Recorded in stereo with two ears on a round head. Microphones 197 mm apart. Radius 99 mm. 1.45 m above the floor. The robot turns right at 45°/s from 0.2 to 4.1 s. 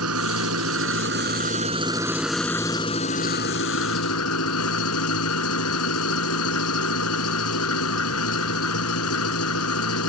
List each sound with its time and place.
0.0 s an engine running: 95° right; by 10.1 s 80° left